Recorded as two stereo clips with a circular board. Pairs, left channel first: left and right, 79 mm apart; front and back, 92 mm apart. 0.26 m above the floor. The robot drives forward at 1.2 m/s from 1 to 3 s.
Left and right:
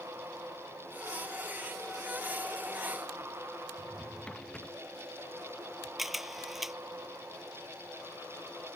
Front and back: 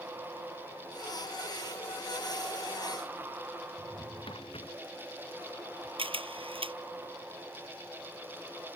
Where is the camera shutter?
175° right.